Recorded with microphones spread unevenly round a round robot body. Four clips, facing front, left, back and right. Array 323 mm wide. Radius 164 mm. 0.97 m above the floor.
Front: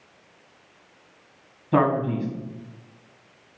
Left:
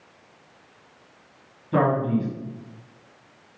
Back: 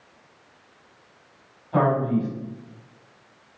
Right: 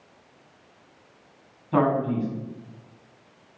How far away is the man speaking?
About 6 m.